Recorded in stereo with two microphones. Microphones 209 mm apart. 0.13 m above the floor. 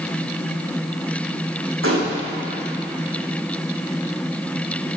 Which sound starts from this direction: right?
A gunshot, at 1.8 s.